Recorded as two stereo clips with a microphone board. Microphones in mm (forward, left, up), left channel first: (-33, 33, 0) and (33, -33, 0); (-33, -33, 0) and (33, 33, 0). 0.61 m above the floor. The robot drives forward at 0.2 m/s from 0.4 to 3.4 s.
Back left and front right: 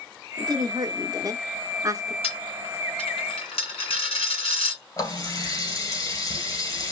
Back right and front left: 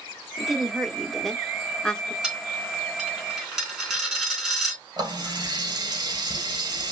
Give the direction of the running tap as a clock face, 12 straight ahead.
9 o'clock.